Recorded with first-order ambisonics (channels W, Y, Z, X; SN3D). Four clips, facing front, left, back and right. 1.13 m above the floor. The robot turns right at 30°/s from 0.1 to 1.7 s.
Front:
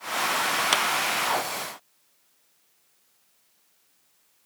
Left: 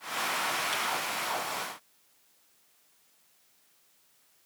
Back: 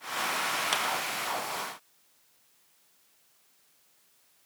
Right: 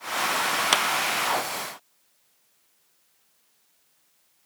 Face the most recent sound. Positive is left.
turn(degrees=-35)